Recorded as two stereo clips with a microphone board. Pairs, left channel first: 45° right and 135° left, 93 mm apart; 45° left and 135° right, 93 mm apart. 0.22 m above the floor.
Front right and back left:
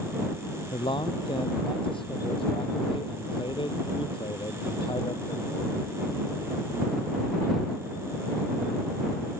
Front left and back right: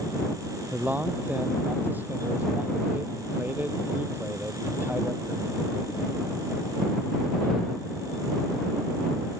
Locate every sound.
0.7 s a man speaking: 65° right